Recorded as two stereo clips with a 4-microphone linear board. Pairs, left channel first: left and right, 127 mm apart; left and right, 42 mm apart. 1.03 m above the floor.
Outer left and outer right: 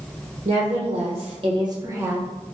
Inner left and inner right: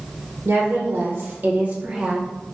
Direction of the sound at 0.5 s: 55° right (ahead or behind).